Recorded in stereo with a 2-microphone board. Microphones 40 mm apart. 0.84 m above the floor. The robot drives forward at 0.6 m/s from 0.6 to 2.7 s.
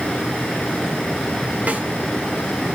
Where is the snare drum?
35° right (ahead or behind), 3 m; by 1.9 s 40° right (ahead or behind), 3 m.